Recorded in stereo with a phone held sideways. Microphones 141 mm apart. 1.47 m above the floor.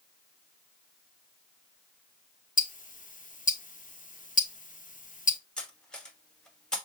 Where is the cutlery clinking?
5° left (ahead or behind), 1.2 m.